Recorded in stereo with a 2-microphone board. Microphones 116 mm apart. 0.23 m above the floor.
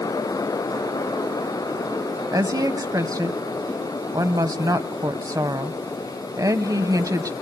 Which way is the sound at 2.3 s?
30° right (ahead or behind).